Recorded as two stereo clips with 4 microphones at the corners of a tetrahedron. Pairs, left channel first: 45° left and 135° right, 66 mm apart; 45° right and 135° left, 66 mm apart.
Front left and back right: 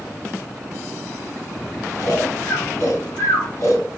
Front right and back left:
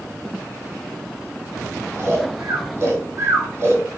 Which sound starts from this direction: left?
Snoring, at 2.0 s.